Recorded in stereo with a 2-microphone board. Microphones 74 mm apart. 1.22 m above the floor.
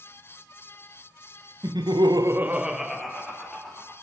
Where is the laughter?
60° right (ahead or behind), 0.8 m; by 3.9 s 10° left (ahead or behind), 2.5 m.